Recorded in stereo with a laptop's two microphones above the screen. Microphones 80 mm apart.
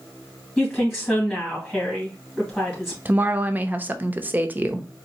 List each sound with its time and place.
0.6 s a woman speaking: 5° right (ahead or behind), 1.7 m
3.0 s a woman speaking: 20° right (ahead or behind), 0.6 m